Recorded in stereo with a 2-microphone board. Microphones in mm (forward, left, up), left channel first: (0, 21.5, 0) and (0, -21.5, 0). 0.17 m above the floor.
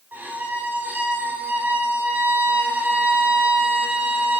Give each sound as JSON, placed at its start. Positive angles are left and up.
{"t": 0.1, "sound": "a violin", "side_deg": -40, "distance_m": 4.0}